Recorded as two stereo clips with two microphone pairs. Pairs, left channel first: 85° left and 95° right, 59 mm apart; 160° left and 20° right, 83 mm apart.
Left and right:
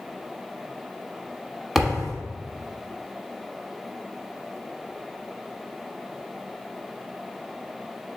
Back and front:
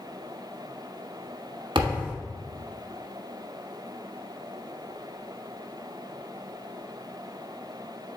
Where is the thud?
15° right, 1.0 m.